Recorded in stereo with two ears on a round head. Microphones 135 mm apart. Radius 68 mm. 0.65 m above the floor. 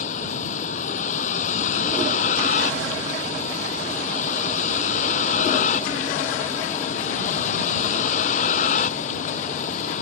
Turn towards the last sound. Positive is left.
turn(degrees=50)  # may be behind; listen again after turning